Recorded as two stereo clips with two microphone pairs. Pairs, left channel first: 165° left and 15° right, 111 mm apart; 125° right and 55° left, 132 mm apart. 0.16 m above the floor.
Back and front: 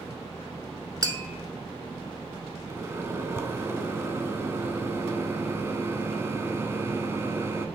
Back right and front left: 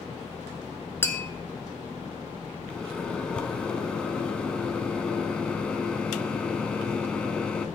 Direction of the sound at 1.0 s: 60° right.